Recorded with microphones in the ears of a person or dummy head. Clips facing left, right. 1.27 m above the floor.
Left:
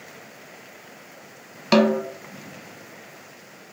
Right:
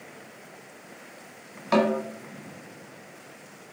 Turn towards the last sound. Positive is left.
turn(degrees=40)  # may be behind; listen again after turning